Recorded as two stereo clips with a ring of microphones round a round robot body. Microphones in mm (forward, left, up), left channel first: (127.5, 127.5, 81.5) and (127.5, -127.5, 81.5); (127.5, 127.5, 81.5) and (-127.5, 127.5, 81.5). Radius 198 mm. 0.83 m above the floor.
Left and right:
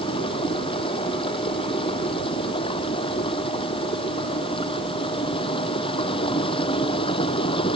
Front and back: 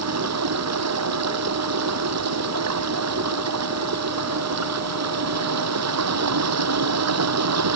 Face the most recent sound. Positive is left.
turn(degrees=165)